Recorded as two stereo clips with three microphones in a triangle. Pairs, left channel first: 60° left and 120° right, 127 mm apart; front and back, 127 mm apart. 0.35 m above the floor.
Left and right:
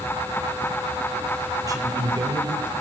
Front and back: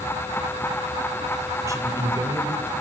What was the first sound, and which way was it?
A man speaking, 145° right.